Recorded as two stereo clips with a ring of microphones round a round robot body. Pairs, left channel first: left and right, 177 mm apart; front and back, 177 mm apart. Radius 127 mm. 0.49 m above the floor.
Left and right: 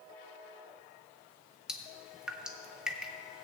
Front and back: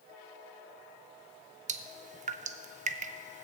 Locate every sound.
1.7 s dripping: 175° right, 0.6 m